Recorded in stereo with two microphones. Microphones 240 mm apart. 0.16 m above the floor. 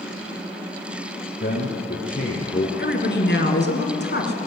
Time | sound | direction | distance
1.4 | a man speaking | 45° left (ahead or behind) | 2.5 m
2.8 | a woman speaking | 45° left (ahead or behind) | 2 m